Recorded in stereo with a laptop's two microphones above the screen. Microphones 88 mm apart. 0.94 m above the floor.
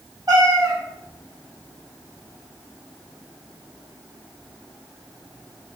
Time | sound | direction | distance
0.3 | a cat meowing | 50° right (ahead or behind) | 1.3 m